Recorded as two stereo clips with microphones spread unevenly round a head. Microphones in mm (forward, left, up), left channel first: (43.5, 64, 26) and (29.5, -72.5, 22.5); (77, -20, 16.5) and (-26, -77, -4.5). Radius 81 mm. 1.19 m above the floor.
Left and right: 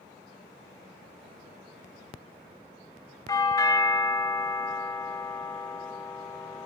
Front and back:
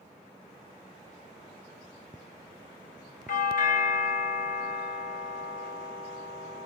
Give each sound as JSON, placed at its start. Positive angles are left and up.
{"t": 3.3, "sound": "a doorbell", "azimuth_deg": 25, "distance_m": 2.5}